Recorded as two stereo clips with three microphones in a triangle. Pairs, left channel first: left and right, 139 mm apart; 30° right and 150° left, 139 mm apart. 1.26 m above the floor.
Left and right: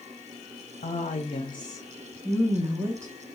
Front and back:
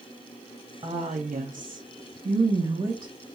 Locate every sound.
0.8 s a woman speaking: 105° left, 0.7 m; by 3.1 s 155° right, 1.0 m